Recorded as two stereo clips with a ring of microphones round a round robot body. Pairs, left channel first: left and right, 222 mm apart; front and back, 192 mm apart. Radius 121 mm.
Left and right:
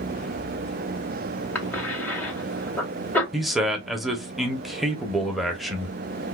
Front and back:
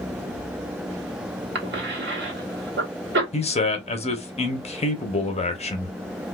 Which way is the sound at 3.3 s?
Straight ahead.